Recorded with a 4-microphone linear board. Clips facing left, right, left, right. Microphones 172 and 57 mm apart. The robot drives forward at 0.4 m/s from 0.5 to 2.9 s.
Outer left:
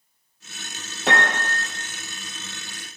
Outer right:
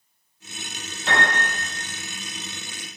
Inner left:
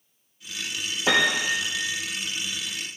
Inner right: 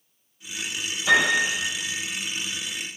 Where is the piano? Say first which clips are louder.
Outer left 1 dB, inner right 2 dB; 60° left (ahead or behind), 0.6 m; by 1.6 s 80° left, 0.5 m.